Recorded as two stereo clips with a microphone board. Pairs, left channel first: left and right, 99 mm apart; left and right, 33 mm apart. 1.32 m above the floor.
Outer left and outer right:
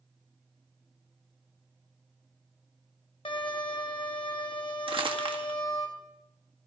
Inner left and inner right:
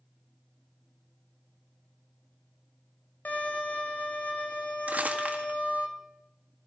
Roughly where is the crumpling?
Right.